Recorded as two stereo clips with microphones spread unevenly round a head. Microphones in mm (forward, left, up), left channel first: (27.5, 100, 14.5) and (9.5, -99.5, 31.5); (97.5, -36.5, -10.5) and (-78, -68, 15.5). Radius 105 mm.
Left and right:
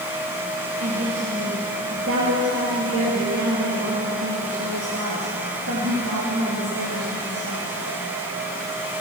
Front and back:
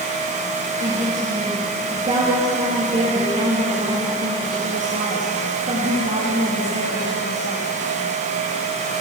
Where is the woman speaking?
120° right, 2.5 m.